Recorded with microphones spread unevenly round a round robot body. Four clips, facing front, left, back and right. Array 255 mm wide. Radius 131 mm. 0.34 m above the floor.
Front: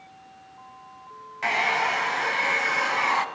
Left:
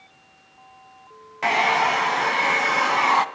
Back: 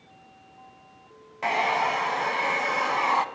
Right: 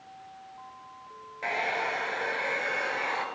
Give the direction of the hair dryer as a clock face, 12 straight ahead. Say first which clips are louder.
Left 11 dB, back 1 dB; 9 o'clock.